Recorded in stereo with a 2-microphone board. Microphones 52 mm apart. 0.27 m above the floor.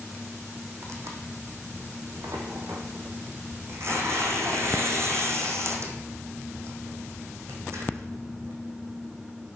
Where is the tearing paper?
60° right (ahead or behind), 2 m.